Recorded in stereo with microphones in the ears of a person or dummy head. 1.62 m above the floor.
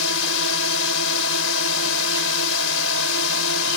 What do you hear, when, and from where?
0.0 s a drone: 80° left